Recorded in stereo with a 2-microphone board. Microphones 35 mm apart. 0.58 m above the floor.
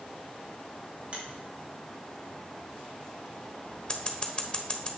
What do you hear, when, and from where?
1.1 s a finger snap: 35° right (ahead or behind), 3.5 m
3.9 s scissors: 25° left (ahead or behind), 1.0 m